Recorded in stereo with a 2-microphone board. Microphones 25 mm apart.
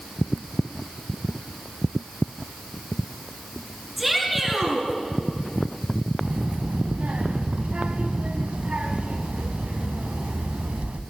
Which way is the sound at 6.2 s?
55° right (ahead or behind).